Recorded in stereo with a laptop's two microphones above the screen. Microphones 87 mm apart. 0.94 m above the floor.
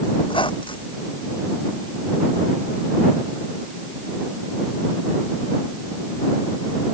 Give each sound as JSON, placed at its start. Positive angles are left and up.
{"t": 0.2, "sound": "a squeak", "side_deg": 70}